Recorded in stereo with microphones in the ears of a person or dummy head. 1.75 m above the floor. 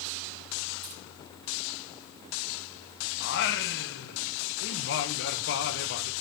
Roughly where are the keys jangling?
Right.